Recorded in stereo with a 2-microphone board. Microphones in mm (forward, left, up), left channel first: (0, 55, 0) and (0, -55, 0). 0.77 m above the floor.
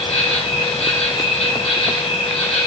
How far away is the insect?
About 4.5 m.